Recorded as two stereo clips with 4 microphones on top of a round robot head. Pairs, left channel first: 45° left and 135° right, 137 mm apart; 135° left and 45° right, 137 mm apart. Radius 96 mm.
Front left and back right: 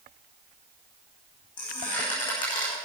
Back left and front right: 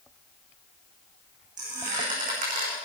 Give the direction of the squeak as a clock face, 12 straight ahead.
12 o'clock.